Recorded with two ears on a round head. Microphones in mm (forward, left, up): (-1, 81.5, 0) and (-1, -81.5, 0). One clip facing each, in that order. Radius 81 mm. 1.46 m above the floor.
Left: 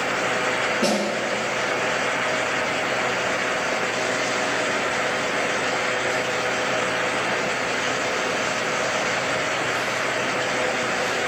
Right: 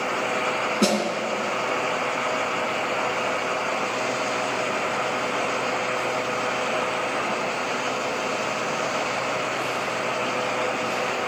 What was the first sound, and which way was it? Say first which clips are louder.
A snare drum: right 1 dB; 65° right (ahead or behind).